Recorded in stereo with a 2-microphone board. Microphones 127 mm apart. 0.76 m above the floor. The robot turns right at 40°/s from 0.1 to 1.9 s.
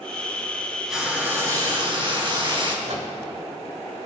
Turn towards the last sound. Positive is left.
turn(degrees=-70)  # may be behind; listen again after turning